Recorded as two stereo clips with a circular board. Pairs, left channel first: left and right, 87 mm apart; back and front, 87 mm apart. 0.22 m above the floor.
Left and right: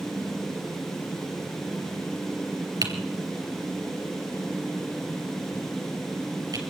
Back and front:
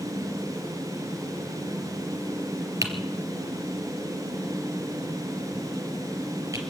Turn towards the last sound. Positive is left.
turn(degrees=-50)